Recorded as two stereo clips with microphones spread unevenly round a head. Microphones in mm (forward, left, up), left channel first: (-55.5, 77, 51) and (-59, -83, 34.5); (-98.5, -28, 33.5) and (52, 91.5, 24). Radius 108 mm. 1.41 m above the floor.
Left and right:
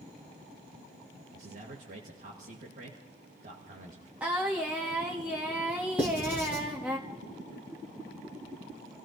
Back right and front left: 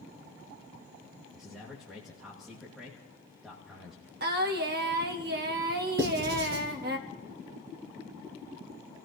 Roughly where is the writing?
Ahead.